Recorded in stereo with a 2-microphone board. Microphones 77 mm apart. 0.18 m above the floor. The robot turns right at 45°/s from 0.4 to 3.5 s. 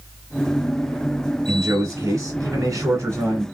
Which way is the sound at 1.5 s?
125° right.